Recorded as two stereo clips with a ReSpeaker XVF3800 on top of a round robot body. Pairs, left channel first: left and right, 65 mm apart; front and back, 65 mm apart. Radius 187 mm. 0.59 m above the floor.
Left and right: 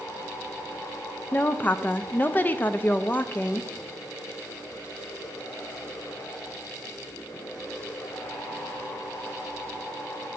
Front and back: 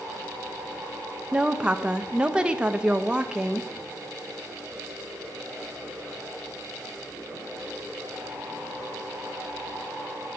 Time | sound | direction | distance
1.3 | a woman speaking | 120° left | 0.6 m